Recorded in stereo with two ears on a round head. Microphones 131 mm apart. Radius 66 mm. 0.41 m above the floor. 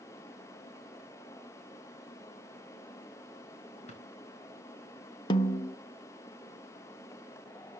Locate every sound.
3.9 s a drawer: 50° left (ahead or behind), 3 m
5.3 s a snare drum: 30° left (ahead or behind), 0.5 m